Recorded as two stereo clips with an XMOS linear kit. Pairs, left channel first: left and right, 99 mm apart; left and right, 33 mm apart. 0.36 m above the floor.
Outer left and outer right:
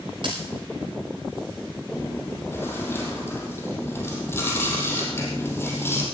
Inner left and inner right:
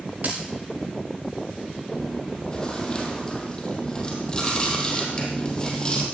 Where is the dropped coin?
55° right (ahead or behind), 6 m.